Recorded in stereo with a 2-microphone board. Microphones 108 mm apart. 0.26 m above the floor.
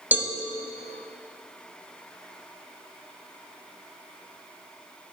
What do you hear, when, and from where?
0.1 s a cowbell: 15° right (ahead or behind), 0.6 m